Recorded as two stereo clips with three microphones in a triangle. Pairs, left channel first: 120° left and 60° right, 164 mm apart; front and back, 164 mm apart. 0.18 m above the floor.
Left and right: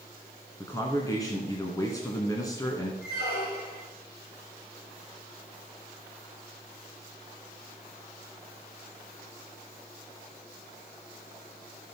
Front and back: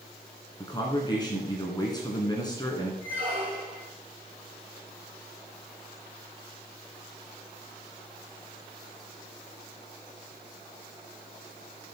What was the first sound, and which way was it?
A man speaking, 55° left.